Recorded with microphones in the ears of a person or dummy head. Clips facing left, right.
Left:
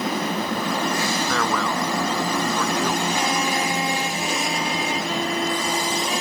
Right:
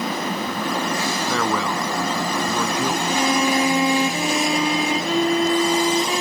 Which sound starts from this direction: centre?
A man speaking, at 1.3 s.